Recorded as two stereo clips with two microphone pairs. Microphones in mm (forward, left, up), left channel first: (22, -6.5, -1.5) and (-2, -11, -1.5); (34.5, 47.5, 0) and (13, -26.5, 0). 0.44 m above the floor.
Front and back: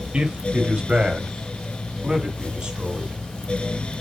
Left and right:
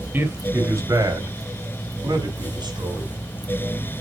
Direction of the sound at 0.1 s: 165° right.